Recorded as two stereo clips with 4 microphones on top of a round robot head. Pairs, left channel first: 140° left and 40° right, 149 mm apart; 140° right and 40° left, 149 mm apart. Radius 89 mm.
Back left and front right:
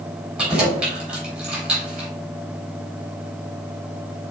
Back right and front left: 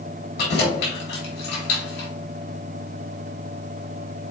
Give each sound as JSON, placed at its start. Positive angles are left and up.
{"t": 0.4, "sound": "keys jangling", "azimuth_deg": -125, "distance_m": 3.5}